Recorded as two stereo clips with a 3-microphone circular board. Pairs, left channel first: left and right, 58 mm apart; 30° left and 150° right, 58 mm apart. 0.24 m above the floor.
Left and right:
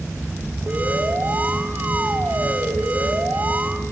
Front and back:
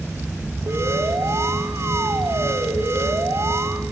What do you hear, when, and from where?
0.7 s an alarm: 145° right, 1.8 m